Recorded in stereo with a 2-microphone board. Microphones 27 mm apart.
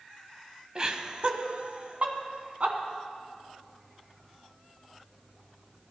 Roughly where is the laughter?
Right.